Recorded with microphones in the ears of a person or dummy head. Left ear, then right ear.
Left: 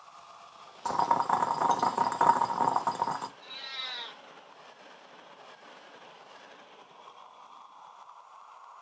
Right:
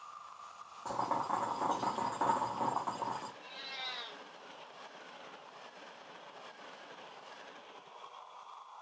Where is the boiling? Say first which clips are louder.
Left 8 dB; 70° left (ahead or behind), 0.6 m.